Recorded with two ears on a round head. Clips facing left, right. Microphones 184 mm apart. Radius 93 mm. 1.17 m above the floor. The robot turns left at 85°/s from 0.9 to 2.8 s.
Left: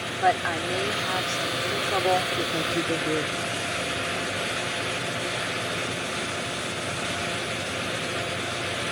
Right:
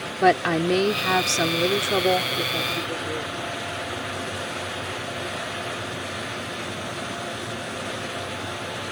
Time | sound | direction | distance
0.2 | a woman speaking | 55° right | ?